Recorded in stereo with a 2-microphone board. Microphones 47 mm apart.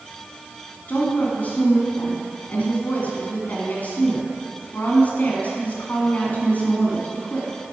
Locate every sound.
0.9 s a woman speaking: 35° left (ahead or behind), 2 m